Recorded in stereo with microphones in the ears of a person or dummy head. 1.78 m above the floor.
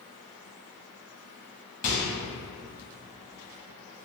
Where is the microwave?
40° left (ahead or behind), 0.8 m.